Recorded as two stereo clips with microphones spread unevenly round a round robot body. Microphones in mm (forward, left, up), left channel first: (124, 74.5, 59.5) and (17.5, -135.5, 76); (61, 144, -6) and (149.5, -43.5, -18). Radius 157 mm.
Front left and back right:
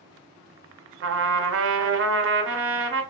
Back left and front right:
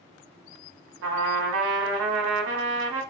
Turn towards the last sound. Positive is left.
turn(degrees=-80)